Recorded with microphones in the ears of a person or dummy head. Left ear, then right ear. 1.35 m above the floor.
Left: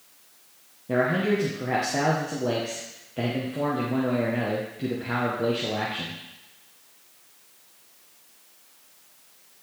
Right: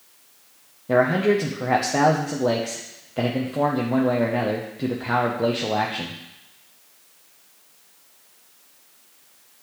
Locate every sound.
0.9 s a man speaking: 25° right (ahead or behind), 0.6 m